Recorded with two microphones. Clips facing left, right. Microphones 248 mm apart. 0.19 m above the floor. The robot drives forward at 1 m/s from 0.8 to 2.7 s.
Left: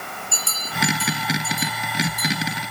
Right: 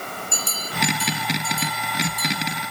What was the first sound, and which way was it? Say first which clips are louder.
A bell: right 2 dB; 20° right (ahead or behind).